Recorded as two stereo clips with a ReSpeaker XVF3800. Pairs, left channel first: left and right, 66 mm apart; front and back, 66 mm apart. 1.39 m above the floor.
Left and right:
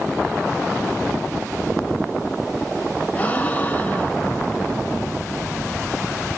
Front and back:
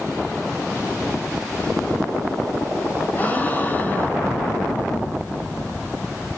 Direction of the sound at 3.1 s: 40° left.